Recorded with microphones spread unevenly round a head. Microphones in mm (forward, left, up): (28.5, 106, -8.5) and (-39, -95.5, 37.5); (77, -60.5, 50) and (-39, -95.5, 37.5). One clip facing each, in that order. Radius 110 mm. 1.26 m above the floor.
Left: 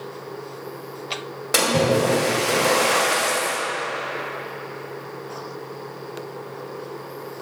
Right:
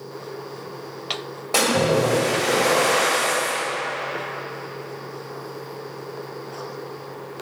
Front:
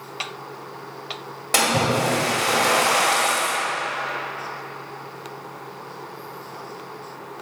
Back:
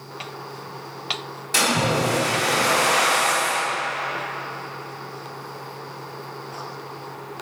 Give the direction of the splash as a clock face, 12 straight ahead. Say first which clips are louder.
Even, front 1 dB; 12 o'clock.